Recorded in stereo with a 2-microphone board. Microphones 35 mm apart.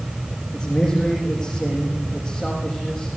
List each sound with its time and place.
0.5 s a man speaking: 5° left (ahead or behind), 6.5 m